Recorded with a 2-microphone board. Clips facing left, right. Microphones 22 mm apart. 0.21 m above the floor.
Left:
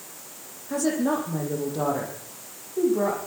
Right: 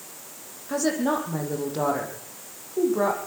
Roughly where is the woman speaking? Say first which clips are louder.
Even; right.